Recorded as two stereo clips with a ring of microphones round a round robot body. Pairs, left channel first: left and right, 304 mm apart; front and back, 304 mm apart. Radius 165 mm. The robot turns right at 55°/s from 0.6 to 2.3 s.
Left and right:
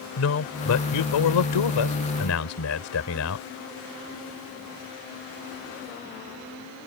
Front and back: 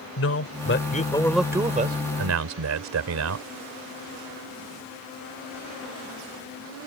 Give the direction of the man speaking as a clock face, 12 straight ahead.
10 o'clock.